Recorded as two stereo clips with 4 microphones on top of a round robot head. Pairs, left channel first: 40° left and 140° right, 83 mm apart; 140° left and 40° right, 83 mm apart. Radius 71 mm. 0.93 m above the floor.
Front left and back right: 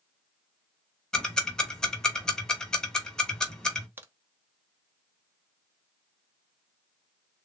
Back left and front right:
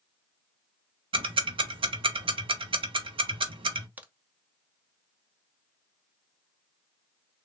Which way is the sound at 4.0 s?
100° right.